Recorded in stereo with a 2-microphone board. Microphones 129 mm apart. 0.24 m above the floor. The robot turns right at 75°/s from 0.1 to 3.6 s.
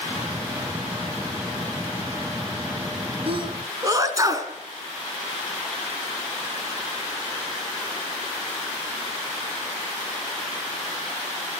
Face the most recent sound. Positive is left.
turn(degrees=-25)  # may be behind; listen again after turning